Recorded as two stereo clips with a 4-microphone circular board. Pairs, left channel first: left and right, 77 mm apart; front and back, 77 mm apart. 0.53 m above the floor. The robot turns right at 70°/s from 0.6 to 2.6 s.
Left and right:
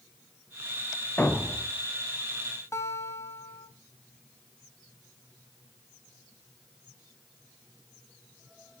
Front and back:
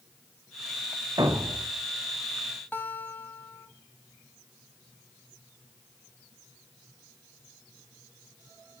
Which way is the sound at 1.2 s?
155° left.